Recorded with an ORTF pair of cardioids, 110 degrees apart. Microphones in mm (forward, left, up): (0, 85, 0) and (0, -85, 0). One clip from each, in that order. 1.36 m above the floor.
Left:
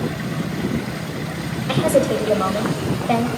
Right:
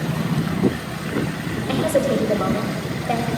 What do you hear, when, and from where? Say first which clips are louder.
1.7 s a woman speaking: left 2 dB; 20° left, 6.5 m